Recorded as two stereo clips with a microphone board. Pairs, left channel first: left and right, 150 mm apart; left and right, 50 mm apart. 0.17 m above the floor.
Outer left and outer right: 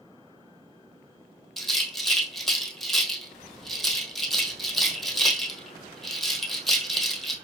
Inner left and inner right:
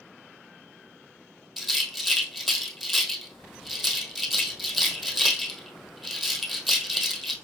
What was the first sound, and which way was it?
A rattle, centre (ahead or behind).